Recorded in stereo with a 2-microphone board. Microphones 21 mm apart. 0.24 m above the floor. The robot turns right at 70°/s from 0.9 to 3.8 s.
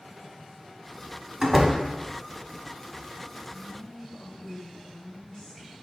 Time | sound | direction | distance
1.4 | a door slam | 15° right (ahead or behind) | 1.0 m
3.5 | a woman speaking | 50° left (ahead or behind) | 2.5 m